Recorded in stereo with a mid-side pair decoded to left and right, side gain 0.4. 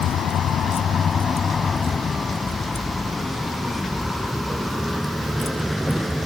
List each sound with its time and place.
0.0 s a vehicle: 70° left; by 6.2 s 10° right